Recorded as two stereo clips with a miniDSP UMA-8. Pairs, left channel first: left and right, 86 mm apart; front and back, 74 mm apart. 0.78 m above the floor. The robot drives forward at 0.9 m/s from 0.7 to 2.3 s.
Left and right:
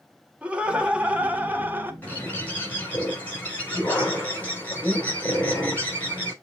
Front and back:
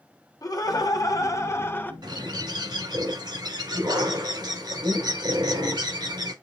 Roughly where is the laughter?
Ahead.